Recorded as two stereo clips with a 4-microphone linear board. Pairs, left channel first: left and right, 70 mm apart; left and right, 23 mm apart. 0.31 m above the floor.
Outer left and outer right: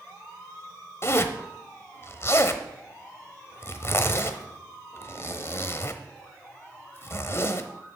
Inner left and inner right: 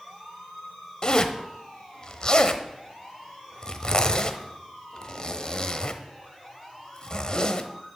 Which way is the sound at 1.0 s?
35° left (ahead or behind).